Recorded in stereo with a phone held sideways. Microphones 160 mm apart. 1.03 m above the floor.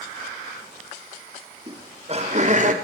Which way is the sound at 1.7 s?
35° right (ahead or behind).